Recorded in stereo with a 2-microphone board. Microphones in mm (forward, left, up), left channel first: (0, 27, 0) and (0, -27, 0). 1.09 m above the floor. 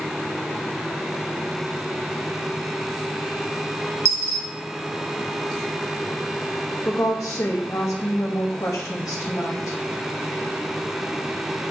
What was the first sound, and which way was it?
A dropped coin, 65° right (ahead or behind).